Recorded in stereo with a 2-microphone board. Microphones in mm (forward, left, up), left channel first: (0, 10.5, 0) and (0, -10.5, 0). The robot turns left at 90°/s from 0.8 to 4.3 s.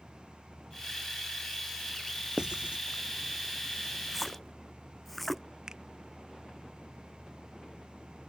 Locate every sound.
2.4 s writing: 40° right (ahead or behind); by 2.8 s 80° right
4.1 s a splash: 10° right (ahead or behind); by 5.4 s 10° left (ahead or behind)
5.7 s a finger snap: 35° right (ahead or behind)